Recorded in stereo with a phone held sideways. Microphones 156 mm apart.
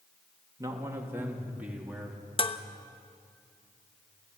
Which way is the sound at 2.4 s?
35° left (ahead or behind).